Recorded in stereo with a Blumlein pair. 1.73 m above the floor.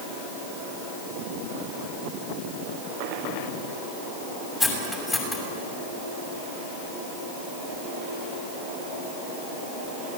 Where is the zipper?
I don't hear a zipper.